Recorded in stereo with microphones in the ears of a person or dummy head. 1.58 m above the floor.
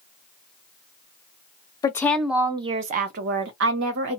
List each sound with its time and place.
1.8 s a woman speaking: 20° left (ahead or behind), 0.6 m; by 4.2 s 75° right (ahead or behind), 1.3 m